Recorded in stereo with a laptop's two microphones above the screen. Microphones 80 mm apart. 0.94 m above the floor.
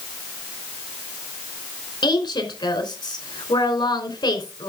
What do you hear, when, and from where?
2.0 s a woman speaking: 70° left (ahead or behind), 3.5 m